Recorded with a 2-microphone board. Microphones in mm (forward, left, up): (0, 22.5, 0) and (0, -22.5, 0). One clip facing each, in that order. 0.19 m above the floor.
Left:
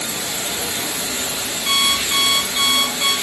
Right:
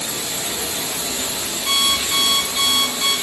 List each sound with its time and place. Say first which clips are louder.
0.0 s running water: left 1 dB; 70° left (ahead or behind), 1.2 m
1.7 s an alarm clock: left 1 dB; 40° left (ahead or behind), 1.9 m